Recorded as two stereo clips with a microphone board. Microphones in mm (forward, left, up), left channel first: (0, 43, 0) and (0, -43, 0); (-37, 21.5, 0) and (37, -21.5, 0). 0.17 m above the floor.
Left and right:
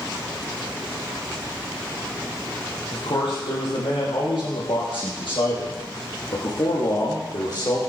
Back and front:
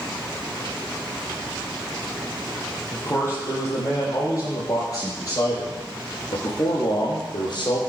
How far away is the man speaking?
About 5 m.